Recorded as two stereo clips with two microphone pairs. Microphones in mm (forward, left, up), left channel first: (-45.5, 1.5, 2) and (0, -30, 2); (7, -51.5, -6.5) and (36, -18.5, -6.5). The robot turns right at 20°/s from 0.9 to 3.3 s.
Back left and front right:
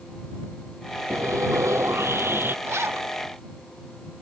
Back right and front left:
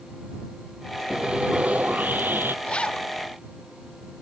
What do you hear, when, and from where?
1.1 s sawing: 20° right; by 2.5 s 10° left
2.6 s a zipper: 70° right; by 3.1 s 60° right